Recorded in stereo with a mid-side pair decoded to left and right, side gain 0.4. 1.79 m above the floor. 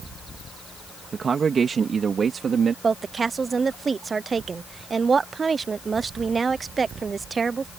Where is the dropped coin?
I don't hear a dropped coin.